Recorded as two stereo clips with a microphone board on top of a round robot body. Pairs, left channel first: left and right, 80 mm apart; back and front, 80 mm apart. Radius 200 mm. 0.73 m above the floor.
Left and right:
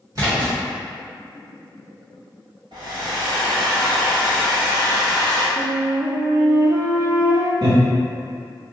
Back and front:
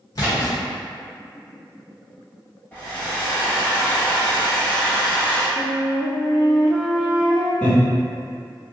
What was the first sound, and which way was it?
A splash, 135° right.